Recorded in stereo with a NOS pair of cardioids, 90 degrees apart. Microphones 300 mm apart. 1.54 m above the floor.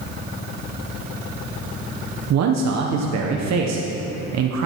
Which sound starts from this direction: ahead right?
A man speaking, at 2.3 s.